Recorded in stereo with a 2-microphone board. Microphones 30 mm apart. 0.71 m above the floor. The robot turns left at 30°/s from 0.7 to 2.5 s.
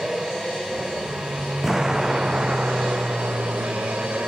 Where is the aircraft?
20° right; by 4.3 s 70° right.